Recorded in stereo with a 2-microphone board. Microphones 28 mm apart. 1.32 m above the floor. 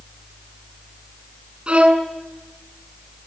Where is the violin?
45° right (ahead or behind), 7 m.